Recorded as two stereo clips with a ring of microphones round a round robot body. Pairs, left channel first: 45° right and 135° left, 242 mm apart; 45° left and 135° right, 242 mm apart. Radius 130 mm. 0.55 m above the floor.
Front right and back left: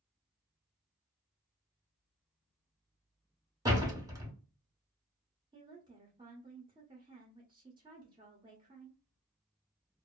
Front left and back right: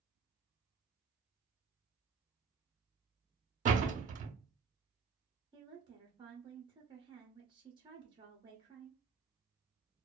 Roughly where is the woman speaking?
Behind.